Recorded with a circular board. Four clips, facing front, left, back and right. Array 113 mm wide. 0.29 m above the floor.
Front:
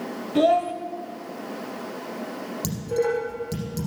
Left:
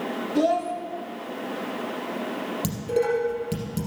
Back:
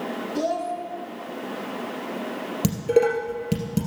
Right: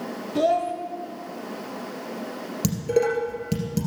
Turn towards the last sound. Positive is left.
turn(degrees=-160)